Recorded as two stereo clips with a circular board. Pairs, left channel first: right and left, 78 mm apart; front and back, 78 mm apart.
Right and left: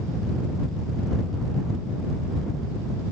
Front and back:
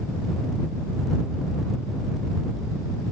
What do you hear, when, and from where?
Only background noise.